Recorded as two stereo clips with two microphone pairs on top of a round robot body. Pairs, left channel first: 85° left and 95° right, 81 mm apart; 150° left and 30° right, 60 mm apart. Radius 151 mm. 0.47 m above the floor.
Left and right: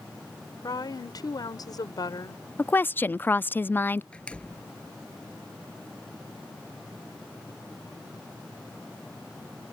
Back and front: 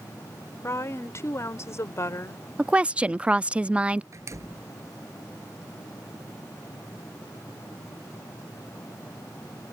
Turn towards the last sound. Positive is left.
turn(degrees=10)